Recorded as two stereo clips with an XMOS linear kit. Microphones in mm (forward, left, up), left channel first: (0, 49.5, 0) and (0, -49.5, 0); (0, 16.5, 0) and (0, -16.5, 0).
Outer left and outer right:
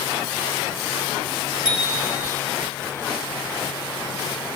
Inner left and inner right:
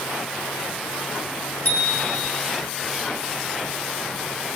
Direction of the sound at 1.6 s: 55° left (ahead or behind).